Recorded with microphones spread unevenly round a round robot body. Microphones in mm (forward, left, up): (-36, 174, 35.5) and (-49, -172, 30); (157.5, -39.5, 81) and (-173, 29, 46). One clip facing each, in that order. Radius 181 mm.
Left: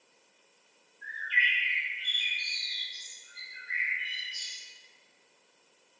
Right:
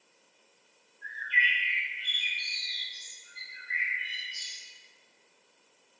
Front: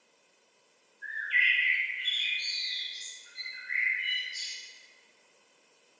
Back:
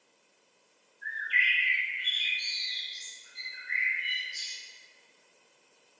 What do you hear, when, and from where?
1.0 s a bird: 105° left, 1.1 m